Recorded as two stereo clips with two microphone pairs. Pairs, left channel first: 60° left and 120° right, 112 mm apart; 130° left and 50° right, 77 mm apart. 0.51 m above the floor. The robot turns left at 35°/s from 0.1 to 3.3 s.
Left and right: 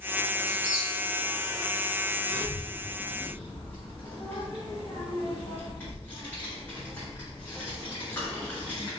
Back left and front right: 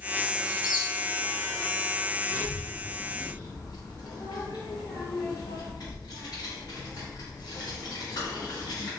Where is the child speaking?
170° left, 1.1 m; by 8.9 s 135° left, 1.1 m.